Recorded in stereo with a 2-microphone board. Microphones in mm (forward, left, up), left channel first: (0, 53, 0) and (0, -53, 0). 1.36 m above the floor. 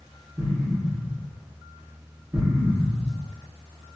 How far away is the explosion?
About 1.0 m.